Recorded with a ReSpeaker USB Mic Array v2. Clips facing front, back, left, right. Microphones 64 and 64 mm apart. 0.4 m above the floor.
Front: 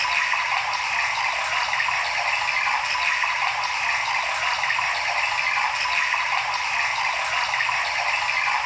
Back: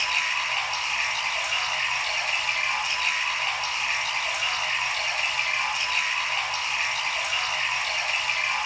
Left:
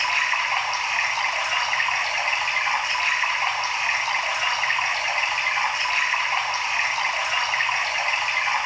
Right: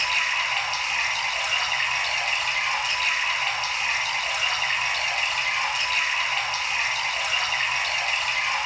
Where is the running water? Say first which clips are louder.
Front 4 dB, left 2 dB; 35° left, 2.5 m.